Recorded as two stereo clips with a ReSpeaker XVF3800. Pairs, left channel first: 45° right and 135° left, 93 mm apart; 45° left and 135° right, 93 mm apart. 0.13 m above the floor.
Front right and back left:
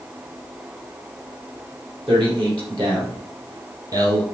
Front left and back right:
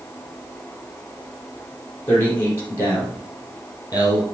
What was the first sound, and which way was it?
A man speaking, 110° left.